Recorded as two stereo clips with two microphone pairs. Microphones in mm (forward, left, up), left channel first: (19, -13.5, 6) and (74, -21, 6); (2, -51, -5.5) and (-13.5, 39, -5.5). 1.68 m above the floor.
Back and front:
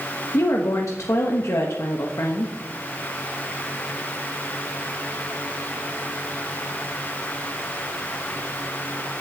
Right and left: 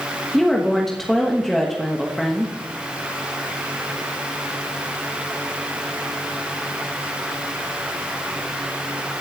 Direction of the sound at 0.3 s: 165° right.